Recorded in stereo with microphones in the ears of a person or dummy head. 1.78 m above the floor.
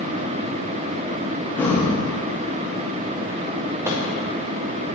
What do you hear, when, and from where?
1.6 s breathing: 10° left (ahead or behind), 0.7 m
3.9 s a microwave: 15° right (ahead or behind), 0.6 m